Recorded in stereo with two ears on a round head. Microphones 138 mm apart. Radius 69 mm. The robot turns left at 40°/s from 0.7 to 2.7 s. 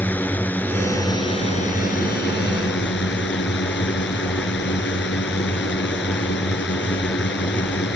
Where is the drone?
170° left; by 8.0 s 90° left.